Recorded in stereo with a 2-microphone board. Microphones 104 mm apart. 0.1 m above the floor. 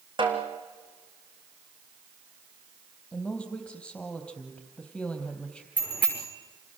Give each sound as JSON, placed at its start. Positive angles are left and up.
{"t": 0.2, "sound": "a snare drum", "side_deg": -50, "distance_m": 3.0}
{"t": 3.1, "sound": "a woman speaking", "side_deg": 10, "distance_m": 3.5}
{"t": 5.8, "sound": "a bicycle bell", "side_deg": -15, "distance_m": 6.5}